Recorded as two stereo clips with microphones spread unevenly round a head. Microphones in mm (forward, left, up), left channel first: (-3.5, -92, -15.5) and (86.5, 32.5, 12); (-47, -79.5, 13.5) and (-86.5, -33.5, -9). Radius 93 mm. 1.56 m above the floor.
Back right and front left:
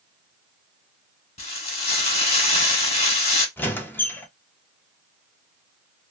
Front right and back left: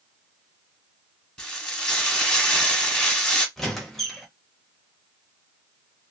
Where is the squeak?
40° right, 0.6 m.